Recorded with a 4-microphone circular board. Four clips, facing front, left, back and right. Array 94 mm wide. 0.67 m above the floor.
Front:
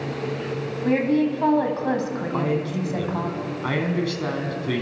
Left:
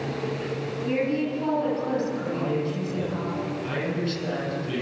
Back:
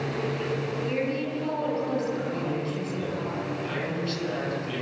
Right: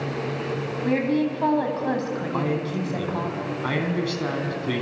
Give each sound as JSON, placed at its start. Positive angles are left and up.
{"t": 0.8, "sound": "a woman speaking", "azimuth_deg": -35, "distance_m": 5.0}
{"t": 2.3, "sound": "a man speaking", "azimuth_deg": -45, "distance_m": 5.0}